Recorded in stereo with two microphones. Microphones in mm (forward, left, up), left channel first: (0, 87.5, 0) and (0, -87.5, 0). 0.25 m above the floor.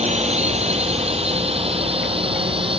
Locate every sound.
0.0 s a drone: 35° right (ahead or behind); by 2.8 s 30° right (ahead or behind)